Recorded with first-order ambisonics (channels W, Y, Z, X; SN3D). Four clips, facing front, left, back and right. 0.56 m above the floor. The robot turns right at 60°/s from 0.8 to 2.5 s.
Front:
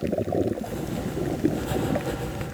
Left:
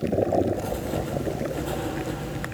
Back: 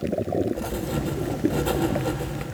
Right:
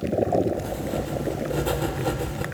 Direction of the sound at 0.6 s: 165° left.